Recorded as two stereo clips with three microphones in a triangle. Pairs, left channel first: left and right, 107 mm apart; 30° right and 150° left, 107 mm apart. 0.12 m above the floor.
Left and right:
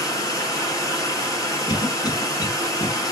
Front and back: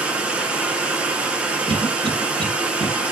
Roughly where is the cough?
Behind left.